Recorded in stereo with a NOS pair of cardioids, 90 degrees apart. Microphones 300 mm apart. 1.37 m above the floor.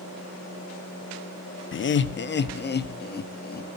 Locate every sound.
1.7 s laughter: 45° left, 1.3 m; by 3.7 s 35° left, 2.5 m